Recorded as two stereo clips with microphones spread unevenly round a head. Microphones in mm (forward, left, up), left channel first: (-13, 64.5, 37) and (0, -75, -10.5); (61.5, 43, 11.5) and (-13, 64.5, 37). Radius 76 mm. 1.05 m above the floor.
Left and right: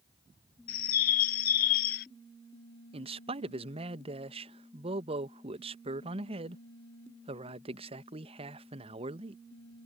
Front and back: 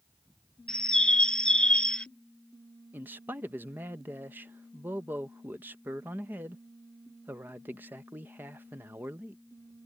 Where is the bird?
60° left.